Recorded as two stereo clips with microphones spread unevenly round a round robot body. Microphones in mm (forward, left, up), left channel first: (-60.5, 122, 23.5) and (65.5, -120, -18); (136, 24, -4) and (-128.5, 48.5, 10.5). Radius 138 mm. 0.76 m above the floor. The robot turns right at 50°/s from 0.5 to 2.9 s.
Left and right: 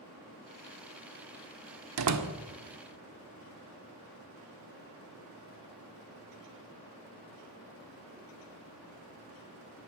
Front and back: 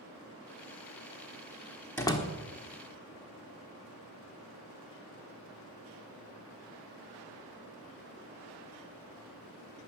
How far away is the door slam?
About 1.3 m.